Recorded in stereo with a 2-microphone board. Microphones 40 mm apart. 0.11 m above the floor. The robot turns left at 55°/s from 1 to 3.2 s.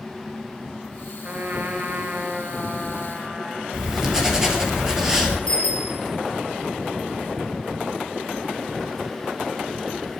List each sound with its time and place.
1.2 s a trumpet: 70° right, 1.6 m; by 3.6 s straight behind, 1.6 m
3.7 s writing: 10° right (ahead or behind), 2.5 m
5.5 s a bicycle bell: 25° left (ahead or behind), 4 m